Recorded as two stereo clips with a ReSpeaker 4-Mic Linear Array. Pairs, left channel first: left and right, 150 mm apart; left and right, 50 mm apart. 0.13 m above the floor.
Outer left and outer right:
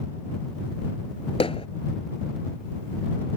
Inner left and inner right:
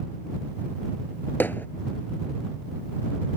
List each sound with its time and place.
1.4 s hammering: 40° left (ahead or behind)